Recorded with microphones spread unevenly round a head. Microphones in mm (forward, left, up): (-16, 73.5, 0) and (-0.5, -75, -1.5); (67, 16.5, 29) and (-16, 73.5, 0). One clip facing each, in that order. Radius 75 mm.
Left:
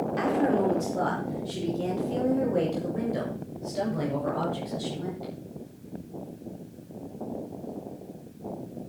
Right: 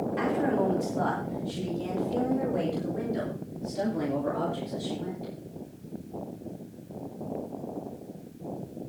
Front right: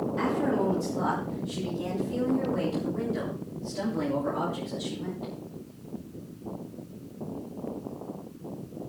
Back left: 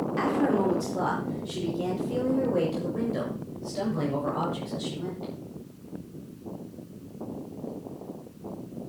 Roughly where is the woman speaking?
Behind left.